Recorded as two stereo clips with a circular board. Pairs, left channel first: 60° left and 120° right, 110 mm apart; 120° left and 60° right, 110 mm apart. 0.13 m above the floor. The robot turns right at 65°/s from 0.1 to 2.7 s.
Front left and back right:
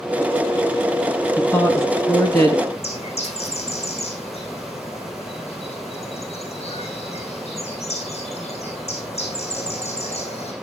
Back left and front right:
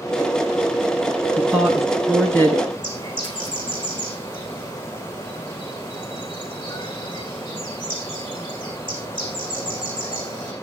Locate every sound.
1.4 s a woman speaking: 5° right, 1.8 m; by 2.6 s 75° left, 1.8 m
2.7 s a bird: 75° left, 5.5 m